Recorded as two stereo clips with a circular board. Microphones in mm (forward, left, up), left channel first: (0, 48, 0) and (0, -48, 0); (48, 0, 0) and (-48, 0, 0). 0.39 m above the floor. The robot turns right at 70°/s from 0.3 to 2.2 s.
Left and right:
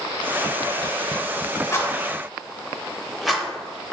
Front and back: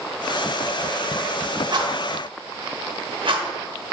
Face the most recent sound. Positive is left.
turn(degrees=-175)